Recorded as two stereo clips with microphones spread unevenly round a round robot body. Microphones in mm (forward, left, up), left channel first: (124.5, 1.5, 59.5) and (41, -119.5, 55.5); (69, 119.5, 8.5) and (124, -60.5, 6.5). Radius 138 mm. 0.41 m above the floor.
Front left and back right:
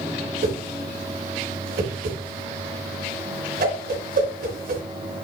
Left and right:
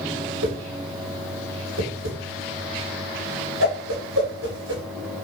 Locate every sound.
0.4 s a whoosh: 115° right, 3.5 m